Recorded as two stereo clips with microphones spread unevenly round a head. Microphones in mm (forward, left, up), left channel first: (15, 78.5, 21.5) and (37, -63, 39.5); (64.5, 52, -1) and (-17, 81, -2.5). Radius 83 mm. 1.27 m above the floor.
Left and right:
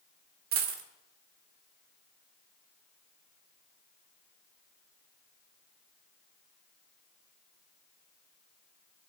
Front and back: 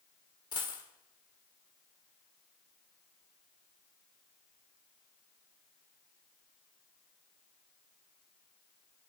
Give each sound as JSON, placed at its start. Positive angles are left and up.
{"t": 0.5, "sound": "a dropped coin", "azimuth_deg": -75, "distance_m": 1.7}